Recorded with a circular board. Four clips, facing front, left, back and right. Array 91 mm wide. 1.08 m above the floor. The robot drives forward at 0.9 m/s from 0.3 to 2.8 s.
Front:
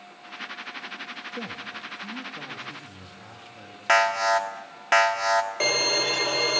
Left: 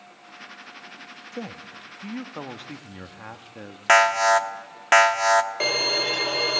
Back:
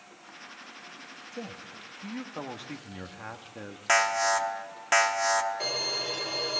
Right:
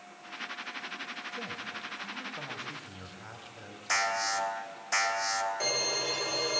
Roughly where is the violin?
Ahead left.